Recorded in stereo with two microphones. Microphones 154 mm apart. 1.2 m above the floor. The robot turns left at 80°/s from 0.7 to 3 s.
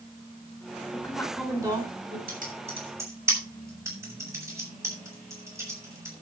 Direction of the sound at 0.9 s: 30° left.